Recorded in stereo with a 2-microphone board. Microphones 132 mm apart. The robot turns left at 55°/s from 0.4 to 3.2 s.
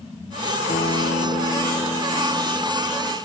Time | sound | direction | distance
0.7 | a guitar | 100° left | ?